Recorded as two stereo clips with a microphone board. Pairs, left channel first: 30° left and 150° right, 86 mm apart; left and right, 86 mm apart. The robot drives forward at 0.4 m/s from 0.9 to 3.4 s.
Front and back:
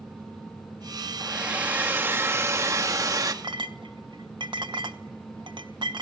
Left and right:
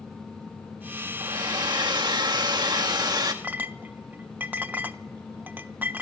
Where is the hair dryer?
75° right, 1.3 m; by 3.3 s 115° right, 1.4 m.